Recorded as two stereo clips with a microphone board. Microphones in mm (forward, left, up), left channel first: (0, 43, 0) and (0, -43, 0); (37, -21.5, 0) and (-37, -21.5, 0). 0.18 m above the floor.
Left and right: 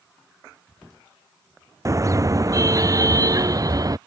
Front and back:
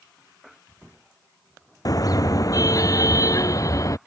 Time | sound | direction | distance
1.9 | a car horn | 40° right | ?